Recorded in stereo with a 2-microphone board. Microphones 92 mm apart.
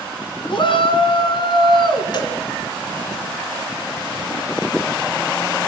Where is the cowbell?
55° left (ahead or behind), 3.5 m.